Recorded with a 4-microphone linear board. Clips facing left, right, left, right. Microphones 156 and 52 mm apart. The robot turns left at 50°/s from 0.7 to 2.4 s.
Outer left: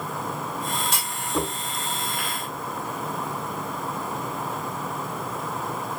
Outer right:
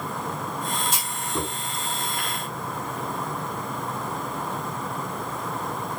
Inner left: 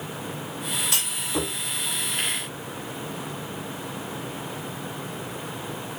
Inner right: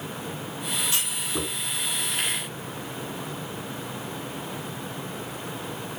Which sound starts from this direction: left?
A clunk, at 0.9 s.